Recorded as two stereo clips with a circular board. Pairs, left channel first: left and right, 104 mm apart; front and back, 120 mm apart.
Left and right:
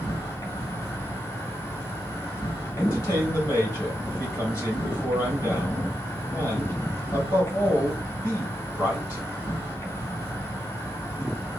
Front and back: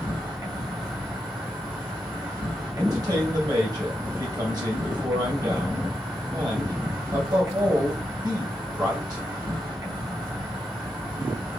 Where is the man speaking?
140° left, 2 m.